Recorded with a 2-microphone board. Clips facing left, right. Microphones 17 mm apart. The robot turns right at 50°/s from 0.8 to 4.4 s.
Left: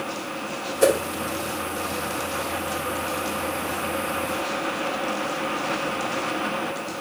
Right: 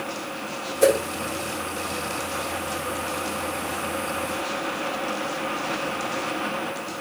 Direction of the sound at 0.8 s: 5° left (ahead or behind).